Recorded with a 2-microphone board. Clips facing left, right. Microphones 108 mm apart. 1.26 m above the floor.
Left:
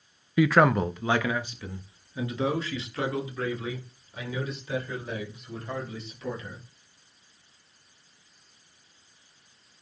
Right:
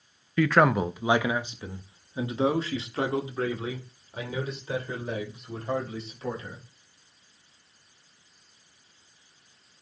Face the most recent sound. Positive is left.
turn(degrees=-40)  # may be behind; listen again after turning